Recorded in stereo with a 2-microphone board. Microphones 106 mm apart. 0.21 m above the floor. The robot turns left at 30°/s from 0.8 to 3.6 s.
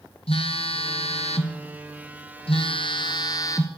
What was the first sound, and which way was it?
A phone buzzing, 115° left.